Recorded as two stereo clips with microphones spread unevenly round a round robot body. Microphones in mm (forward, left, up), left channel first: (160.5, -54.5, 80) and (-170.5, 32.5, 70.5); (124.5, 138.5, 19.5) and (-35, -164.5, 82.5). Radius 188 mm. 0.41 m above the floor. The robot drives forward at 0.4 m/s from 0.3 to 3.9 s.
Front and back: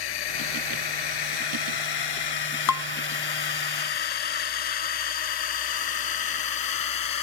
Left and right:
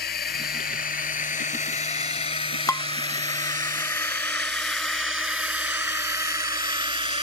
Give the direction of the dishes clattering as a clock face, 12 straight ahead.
12 o'clock.